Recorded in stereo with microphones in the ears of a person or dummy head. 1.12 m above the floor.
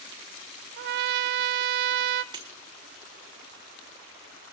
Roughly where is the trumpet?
Right.